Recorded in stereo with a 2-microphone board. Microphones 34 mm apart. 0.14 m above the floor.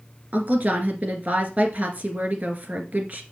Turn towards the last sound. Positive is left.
turn(degrees=-45)  # may be behind; listen again after turning